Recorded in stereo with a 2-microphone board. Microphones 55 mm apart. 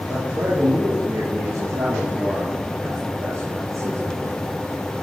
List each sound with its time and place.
0.1 s a man speaking: 75° right (ahead or behind), 9.5 m; by 4.3 s 60° right (ahead or behind), 4.5 m